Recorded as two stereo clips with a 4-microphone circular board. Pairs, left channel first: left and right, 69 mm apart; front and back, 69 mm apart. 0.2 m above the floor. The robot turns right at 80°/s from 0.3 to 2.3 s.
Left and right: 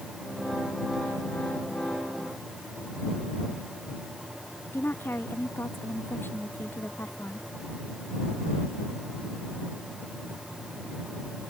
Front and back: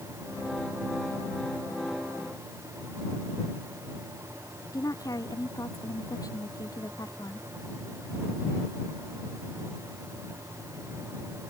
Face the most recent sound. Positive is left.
turn(degrees=30)